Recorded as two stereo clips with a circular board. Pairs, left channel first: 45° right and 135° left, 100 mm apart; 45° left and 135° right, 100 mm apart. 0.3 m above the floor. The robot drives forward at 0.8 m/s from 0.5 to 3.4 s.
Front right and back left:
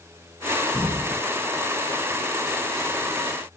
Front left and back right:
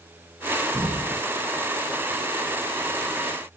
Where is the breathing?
175° left, 1.7 m.